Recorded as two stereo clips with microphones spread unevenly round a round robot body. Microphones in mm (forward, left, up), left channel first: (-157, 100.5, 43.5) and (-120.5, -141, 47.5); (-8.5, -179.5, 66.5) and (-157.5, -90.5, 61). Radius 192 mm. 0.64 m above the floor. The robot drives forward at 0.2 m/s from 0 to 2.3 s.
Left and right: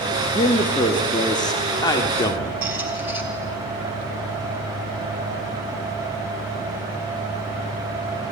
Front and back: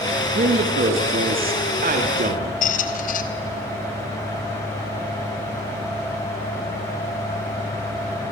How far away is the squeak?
About 0.7 m.